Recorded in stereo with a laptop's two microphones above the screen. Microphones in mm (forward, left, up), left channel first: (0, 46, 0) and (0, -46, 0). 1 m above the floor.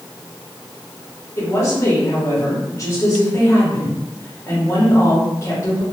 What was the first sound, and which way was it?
A woman speaking, 35° left (ahead or behind).